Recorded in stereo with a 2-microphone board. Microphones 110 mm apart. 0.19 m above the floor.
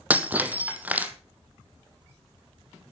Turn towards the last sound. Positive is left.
turn(degrees=-15)  # may be behind; listen again after turning